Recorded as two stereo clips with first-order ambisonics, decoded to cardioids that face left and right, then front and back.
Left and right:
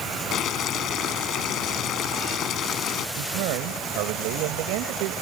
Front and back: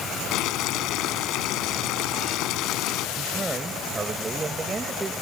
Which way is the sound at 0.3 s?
35° left.